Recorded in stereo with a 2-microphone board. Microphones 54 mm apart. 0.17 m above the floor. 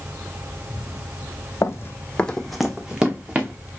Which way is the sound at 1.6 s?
60° left (ahead or behind).